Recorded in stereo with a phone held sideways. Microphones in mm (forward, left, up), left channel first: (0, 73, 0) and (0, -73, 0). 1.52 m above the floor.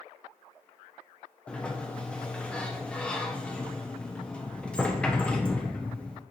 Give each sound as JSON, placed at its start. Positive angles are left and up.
{"t": 1.5, "sound": "a sliding door", "side_deg": 10, "distance_m": 0.7}